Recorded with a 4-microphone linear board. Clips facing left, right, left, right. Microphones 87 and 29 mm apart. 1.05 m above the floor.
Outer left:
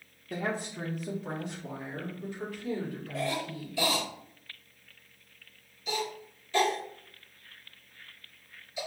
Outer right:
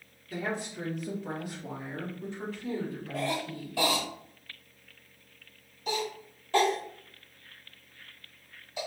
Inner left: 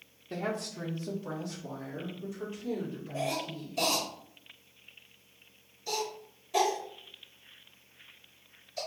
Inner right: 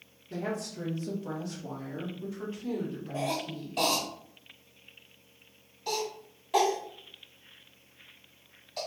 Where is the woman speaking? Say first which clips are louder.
Outer left 1 dB, even; 45° left (ahead or behind), 1.1 m; by 3.9 s 40° right (ahead or behind), 3 m.